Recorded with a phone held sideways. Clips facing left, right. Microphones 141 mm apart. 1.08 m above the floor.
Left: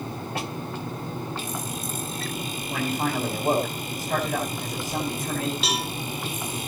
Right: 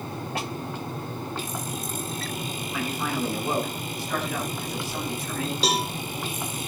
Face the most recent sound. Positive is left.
turn(degrees=-35)  # may be behind; listen again after turning